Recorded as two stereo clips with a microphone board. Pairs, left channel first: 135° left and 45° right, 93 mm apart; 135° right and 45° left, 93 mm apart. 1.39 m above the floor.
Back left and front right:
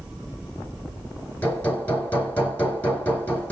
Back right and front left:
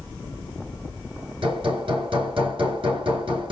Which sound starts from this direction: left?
Hammering, at 1.4 s.